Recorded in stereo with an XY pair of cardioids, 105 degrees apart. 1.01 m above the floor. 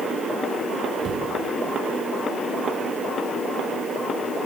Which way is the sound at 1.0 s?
40° right.